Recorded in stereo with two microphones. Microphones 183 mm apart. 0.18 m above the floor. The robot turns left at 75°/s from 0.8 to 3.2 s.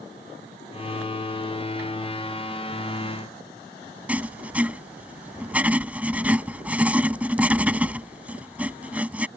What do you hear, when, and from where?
4.1 s writing: 10° right (ahead or behind)